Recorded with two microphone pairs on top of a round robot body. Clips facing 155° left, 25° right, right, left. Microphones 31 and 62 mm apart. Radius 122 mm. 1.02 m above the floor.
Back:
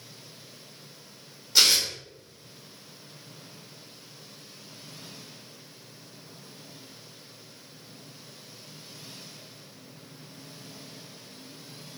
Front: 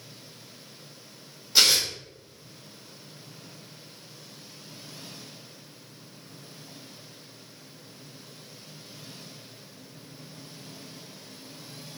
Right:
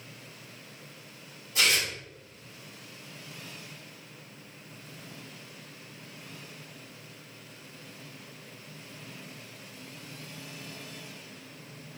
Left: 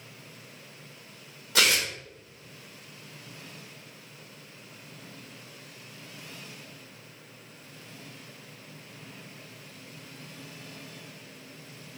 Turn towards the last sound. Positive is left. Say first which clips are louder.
# even, left 2 dB
turn(degrees=60)